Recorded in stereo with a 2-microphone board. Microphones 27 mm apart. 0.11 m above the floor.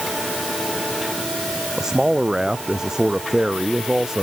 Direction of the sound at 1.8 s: 25° right (ahead or behind).